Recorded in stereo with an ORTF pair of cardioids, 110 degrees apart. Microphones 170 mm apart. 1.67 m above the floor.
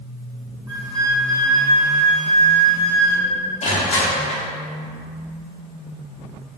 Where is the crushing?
40° left, 1.0 m.